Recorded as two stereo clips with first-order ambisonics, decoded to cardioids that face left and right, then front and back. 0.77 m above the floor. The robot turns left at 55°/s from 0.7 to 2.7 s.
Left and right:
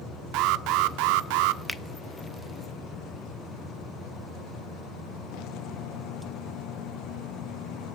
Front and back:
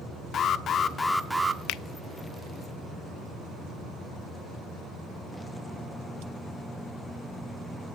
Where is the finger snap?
5° left, 0.6 m; by 1.8 s 5° right, 0.6 m.